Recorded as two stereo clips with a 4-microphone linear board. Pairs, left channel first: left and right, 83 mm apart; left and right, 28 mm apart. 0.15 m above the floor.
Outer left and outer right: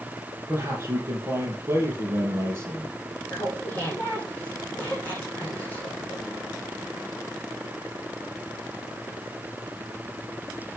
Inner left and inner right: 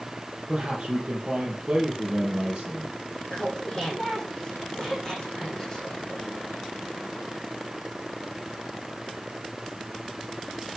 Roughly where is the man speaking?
Right.